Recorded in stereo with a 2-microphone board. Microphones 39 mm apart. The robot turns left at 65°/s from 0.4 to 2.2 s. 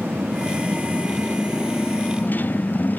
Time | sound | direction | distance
0.0 | a motorcycle | 110° right | ?